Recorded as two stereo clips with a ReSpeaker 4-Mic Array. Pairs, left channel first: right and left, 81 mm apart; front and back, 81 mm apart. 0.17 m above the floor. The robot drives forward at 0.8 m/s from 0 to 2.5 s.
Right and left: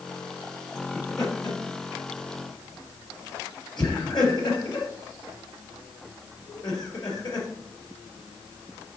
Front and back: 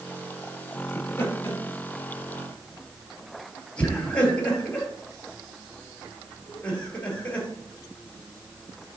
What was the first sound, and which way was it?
Laughter, 55° right.